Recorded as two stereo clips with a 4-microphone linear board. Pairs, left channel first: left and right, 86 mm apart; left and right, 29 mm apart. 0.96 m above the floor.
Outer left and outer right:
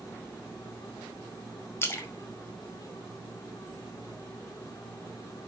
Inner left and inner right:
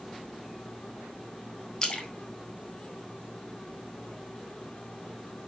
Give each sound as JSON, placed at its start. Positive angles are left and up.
{"t": 1.8, "sound": "a splash", "side_deg": 30, "distance_m": 1.6}